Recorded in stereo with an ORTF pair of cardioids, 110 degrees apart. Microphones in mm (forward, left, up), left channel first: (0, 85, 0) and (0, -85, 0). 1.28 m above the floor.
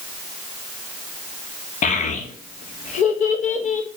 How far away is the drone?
I don't hear a drone.